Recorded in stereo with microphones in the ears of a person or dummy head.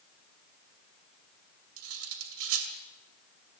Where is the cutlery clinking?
80° right, 2.5 m.